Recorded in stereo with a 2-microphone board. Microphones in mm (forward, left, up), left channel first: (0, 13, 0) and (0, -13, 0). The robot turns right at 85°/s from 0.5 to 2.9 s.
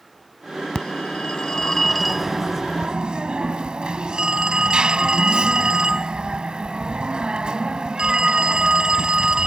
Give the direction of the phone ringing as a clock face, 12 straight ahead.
10 o'clock.